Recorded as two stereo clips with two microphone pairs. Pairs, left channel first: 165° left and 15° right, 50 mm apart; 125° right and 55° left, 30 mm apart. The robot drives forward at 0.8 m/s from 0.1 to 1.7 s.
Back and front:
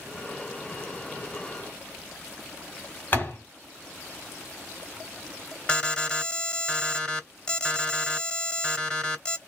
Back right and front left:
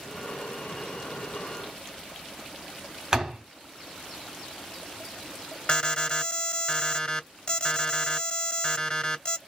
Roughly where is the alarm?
Behind right.